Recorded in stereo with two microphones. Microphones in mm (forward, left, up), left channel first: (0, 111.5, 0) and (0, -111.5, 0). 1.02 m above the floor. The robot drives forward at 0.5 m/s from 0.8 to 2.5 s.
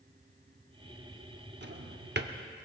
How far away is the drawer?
About 0.8 m.